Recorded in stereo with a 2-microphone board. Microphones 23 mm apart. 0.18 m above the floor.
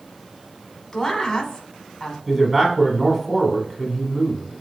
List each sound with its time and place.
0.9 s a woman speaking: 15° left (ahead or behind), 1.0 m
2.3 s a man speaking: 15° right (ahead or behind), 1.2 m